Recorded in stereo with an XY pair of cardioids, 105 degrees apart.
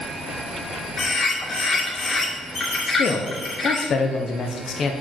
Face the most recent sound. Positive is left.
turn(degrees=55)